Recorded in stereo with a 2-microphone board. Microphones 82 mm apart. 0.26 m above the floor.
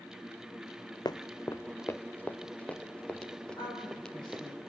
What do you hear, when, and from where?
1.1 s running footsteps: 55° left (ahead or behind), 0.7 m; by 4.5 s 5° left (ahead or behind), 3.5 m
3.5 s a woman speaking: 65° left (ahead or behind), 8.5 m